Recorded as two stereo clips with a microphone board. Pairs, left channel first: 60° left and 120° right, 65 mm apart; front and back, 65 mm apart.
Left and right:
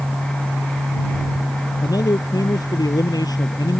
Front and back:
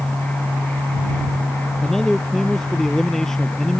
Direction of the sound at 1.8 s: 80° left.